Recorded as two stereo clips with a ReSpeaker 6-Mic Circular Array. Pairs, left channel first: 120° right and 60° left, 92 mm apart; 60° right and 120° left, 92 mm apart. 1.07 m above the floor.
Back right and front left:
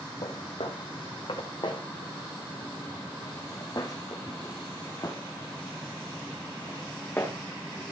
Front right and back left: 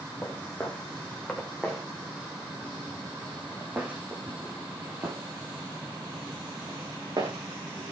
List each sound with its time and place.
0.2 s footsteps: 130° right, 3.5 m; by 7.9 s 165° left, 5 m